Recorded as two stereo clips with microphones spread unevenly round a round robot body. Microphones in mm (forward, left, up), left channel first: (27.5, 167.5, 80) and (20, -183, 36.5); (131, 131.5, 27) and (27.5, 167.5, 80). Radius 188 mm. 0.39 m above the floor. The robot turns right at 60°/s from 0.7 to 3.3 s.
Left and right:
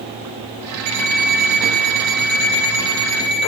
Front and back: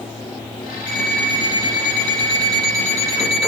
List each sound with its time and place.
0.9 s an alarm clock: 135° right, 5.5 m; by 3.5 s 15° left, 5.5 m